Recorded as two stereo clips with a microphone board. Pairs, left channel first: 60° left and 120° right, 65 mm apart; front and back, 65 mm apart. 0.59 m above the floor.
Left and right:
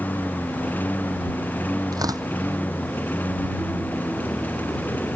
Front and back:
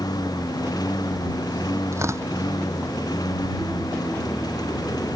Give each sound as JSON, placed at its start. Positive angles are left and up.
{"t": 0.0, "sound": "a lawn mower", "azimuth_deg": -5}
{"t": 1.9, "sound": "tearing paper", "azimuth_deg": -135}